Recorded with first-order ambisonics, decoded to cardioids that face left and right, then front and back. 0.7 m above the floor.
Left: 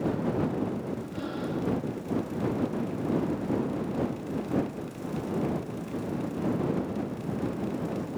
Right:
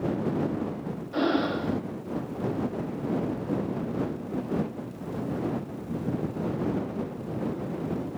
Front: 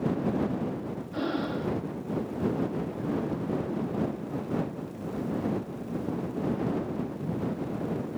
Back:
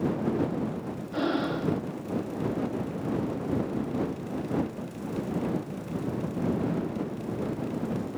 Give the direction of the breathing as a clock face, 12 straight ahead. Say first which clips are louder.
Right 11 dB, back 3 dB; 4 o'clock.